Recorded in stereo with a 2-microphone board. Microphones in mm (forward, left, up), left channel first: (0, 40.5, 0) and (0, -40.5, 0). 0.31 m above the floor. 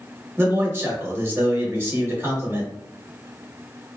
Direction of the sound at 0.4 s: 35° right (ahead or behind).